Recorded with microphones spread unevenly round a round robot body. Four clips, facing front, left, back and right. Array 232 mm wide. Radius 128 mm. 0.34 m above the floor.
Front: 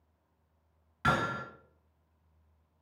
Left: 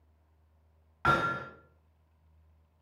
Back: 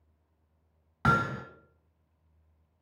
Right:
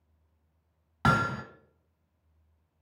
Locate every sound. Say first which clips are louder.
1.0 s hammering: right 1 dB, back 3 dB; 135° right, 1.0 m